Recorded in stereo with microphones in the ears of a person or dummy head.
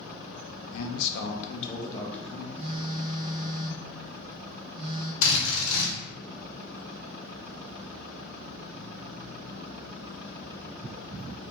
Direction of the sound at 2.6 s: 40° right (ahead or behind).